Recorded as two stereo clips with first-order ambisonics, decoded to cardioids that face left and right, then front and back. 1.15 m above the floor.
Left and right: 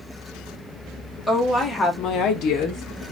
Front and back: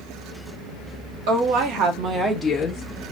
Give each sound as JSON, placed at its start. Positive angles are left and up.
{"t": 1.3, "sound": "a woman speaking", "azimuth_deg": 175, "distance_m": 1.0}